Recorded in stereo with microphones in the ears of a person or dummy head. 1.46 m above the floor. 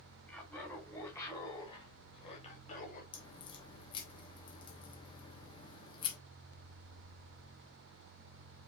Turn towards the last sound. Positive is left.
turn(degrees=30)  # may be behind; listen again after turning